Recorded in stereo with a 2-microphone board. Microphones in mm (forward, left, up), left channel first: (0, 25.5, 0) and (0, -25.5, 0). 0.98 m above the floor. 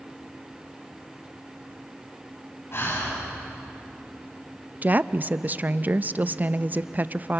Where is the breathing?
55° left (ahead or behind), 7 m.